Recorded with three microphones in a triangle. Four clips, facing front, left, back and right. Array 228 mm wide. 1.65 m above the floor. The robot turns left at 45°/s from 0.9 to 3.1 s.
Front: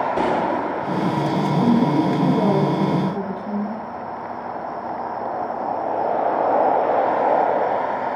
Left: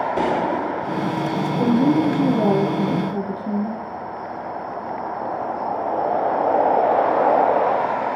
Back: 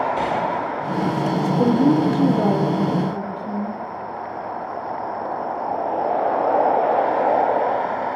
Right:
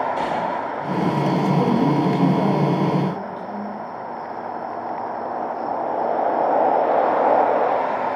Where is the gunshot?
35° left, 1.6 m; by 1.3 s 15° left, 1.6 m.